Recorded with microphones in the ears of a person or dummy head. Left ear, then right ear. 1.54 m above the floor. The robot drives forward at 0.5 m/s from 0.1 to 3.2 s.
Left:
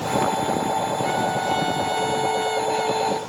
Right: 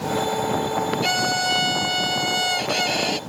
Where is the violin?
75° right (ahead or behind).